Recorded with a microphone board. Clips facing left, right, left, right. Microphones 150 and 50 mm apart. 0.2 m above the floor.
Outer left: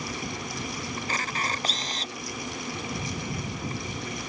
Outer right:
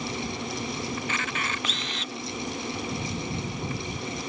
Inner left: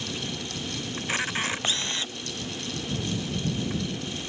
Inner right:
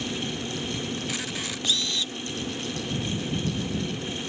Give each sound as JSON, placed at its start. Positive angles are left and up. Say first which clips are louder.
{"t": 1.0, "sound": "a camera shutter", "louder": "even, inner left 3 dB", "side_deg": 40}